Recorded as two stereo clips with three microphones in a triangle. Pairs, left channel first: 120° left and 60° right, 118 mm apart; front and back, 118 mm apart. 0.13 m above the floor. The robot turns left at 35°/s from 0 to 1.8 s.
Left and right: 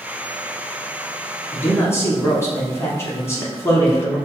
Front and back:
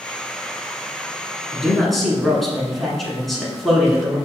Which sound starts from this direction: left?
A man speaking, at 1.5 s.